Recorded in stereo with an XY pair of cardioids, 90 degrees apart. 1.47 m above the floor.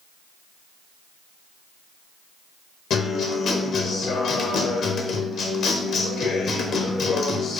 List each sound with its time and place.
2.9 s a guitar: 70° left, 0.9 m